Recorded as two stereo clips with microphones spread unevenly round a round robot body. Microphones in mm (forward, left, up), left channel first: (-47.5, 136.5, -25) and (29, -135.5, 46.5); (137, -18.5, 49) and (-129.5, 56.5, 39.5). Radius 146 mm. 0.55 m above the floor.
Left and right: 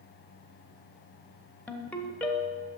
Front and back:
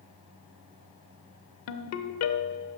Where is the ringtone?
20° left, 0.8 m.